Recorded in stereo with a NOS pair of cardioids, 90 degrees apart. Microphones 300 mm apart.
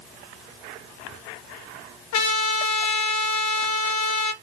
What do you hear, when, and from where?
2.1 s a trumpet: 65° left, 1.0 m